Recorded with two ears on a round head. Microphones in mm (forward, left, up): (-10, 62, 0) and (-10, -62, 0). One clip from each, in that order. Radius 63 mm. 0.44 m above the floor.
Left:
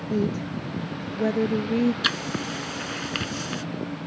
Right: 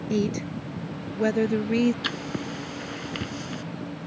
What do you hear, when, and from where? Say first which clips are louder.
0.1 s a woman speaking: even; 65° right (ahead or behind); by 1.9 s 70° right (ahead or behind)
2.0 s writing: left 5 dB; 40° left (ahead or behind)